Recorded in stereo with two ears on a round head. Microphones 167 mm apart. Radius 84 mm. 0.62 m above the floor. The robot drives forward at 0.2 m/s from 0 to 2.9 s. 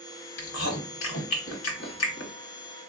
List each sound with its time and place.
0.4 s chewing: 75° left (ahead or behind), 1.0 m; by 2.3 s 70° left (ahead or behind), 1.0 m